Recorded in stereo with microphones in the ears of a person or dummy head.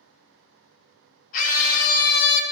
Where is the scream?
50° left (ahead or behind), 1.7 m; by 2.4 s 60° left (ahead or behind), 1.1 m.